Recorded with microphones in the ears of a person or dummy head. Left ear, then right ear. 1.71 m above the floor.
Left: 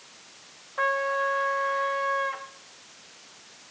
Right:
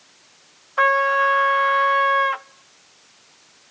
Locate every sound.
0.8 s a trumpet: 40° right (ahead or behind), 0.5 m